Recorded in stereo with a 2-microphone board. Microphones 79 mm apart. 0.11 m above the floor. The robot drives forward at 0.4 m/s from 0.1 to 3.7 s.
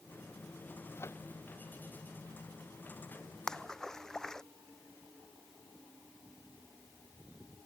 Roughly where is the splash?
Centre.